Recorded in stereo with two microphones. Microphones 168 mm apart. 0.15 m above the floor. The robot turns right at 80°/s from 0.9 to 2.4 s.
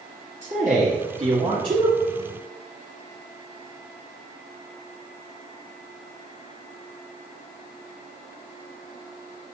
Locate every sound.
0.4 s a man speaking: 105° right, 2.5 m; by 1.9 s 25° right, 2.5 m